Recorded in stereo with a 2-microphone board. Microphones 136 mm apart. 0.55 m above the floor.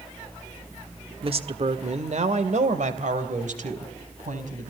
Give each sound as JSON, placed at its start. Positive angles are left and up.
{"t": 1.2, "sound": "a woman speaking", "side_deg": -40, "distance_m": 1.3}